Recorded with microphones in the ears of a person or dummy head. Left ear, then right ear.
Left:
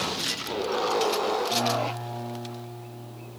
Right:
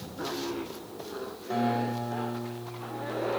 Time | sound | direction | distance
1.5 | a guitar | 75° right (ahead or behind) | 5 m